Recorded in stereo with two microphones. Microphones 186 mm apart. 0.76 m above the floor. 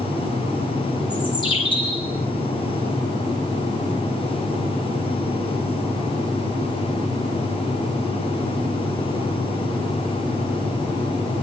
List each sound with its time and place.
1.1 s a bird: 25° left (ahead or behind), 8.5 m